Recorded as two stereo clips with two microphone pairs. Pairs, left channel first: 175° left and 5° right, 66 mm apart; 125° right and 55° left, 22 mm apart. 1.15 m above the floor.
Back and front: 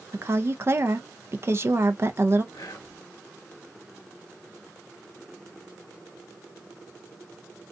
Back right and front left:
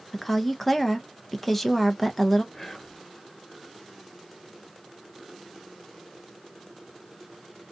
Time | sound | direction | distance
0.1 | a woman speaking | 40° right | 0.5 m
2.5 | whispering | 155° left | 0.7 m